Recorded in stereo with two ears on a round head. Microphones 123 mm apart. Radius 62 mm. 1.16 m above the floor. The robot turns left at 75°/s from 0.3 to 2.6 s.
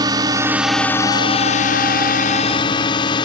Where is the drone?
30° right (ahead or behind); by 3.2 s 35° left (ahead or behind).